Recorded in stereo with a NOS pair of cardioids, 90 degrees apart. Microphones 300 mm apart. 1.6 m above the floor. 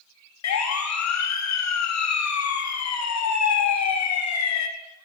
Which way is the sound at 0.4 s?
65° left.